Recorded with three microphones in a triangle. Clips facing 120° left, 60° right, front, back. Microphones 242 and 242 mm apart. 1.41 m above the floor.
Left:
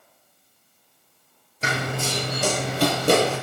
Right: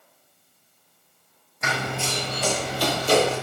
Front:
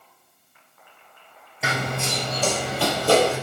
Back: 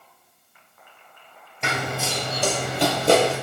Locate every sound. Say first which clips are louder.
1.6 s running footsteps: left 2 dB, even; 85° left, 1.8 m; by 3.3 s 120° left, 3 m